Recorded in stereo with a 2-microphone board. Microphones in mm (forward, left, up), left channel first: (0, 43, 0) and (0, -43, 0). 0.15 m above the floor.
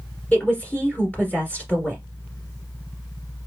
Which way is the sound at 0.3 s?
15° left (ahead or behind).